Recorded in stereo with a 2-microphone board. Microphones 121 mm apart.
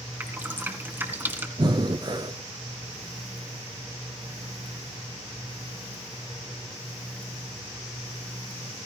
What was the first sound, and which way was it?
Dripping, 15° right (ahead or behind).